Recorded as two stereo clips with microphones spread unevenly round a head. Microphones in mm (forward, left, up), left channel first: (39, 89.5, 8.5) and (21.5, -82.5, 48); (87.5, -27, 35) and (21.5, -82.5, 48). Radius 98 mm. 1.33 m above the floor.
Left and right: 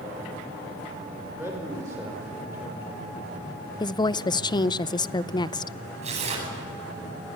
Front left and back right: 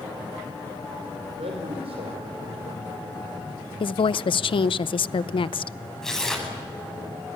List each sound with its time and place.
1.4 s a man speaking: 170° right, 5.5 m
3.8 s a woman speaking: 15° left, 0.7 m
6.0 s tearing paper: 45° right, 9 m